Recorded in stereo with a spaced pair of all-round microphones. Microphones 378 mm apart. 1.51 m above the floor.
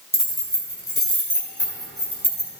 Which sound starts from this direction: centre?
Keys jangling, at 0.1 s.